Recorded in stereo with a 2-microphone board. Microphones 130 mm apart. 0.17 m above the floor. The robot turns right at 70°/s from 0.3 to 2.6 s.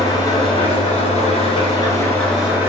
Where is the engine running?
35° left, 1.0 m; by 2.7 s 165° right, 1.0 m.